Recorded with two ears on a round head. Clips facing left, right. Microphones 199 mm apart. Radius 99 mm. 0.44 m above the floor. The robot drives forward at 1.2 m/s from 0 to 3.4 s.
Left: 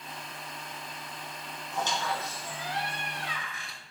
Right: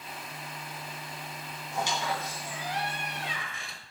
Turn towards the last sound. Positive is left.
turn(degrees=-25)  # may be behind; listen again after turning